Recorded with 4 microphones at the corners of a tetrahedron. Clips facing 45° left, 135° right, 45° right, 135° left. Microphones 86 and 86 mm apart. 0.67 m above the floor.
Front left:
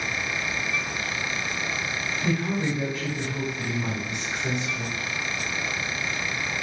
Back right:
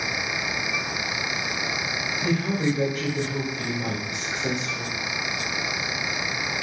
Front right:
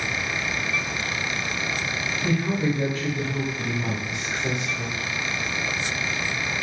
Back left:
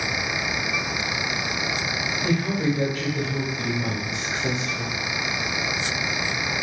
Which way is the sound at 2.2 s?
165° left.